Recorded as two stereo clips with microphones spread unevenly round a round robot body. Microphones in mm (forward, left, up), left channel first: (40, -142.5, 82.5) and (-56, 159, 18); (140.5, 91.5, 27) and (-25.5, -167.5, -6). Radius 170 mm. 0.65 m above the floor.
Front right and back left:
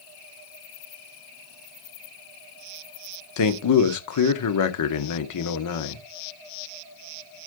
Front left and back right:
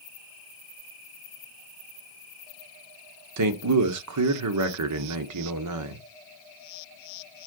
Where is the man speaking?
110° right, 1.4 m.